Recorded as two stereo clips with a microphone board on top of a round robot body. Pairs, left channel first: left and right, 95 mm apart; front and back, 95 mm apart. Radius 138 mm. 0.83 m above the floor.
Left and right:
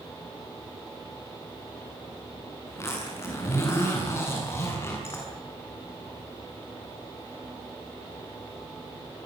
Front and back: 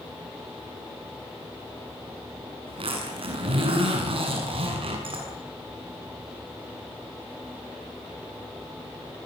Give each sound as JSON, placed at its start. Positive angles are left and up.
{"t": 2.7, "sound": "a zipper", "azimuth_deg": 155, "distance_m": 7.0}